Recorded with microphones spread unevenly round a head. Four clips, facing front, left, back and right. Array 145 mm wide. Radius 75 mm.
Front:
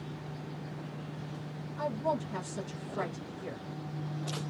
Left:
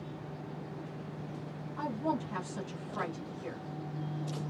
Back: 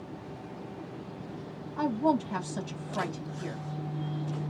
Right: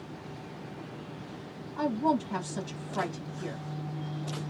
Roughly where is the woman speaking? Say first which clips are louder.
Right 6 dB, back 6 dB; behind right.